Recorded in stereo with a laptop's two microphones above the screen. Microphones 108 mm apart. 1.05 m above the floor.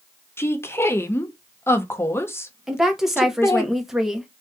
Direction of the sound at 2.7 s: 5° right (ahead or behind).